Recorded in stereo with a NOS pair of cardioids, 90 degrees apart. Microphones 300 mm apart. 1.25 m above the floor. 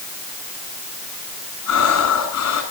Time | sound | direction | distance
1.7 | breathing | 65° left | 9.5 m